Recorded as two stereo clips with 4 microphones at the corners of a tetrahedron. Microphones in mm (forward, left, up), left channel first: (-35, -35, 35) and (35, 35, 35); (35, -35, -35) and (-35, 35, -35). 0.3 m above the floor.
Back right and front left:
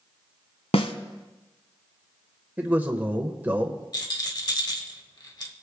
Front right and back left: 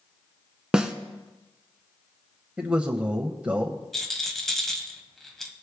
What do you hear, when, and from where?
0.7 s a snare drum: 140° right, 0.9 m
2.6 s a man speaking: 85° left, 0.9 m
3.9 s a rattle: 130° right, 1.3 m